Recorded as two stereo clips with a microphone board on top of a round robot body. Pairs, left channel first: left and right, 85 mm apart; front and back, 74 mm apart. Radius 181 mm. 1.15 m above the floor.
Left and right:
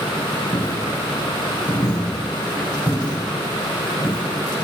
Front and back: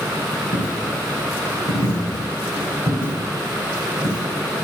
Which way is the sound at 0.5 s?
25° left.